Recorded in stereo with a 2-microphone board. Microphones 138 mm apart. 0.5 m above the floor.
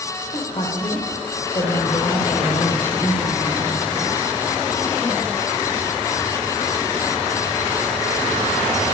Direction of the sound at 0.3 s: 40° left (ahead or behind).